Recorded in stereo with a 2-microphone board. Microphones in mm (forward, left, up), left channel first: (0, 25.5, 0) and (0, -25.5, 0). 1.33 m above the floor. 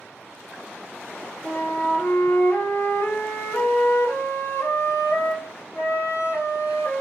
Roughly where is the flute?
Left.